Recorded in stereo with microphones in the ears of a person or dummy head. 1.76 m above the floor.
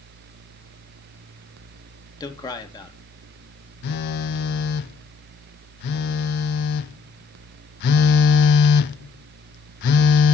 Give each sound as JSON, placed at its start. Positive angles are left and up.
{"t": 2.2, "sound": "a man speaking", "side_deg": 20, "distance_m": 2.5}
{"t": 3.8, "sound": "a phone buzzing", "side_deg": 60, "distance_m": 0.8}